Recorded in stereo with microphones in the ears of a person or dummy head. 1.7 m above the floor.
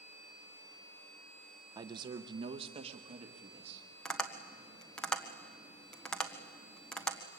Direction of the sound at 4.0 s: 5° left (ahead or behind).